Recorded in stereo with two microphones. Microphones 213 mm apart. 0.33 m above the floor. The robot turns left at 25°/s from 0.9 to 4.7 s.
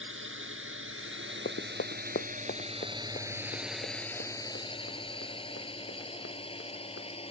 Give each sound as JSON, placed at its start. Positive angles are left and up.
{"t": 0.0, "sound": "a drone", "side_deg": -70}
{"t": 1.4, "sound": "running footsteps", "side_deg": 60}